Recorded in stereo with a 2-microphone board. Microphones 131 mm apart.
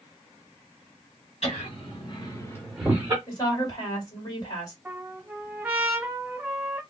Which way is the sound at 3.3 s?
30° left (ahead or behind).